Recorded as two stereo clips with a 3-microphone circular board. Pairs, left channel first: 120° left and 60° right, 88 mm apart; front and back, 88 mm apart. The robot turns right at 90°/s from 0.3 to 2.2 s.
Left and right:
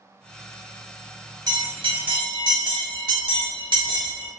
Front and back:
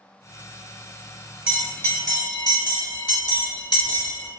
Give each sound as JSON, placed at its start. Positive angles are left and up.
{"t": 1.5, "sound": "a bell", "azimuth_deg": -100, "distance_m": 0.8}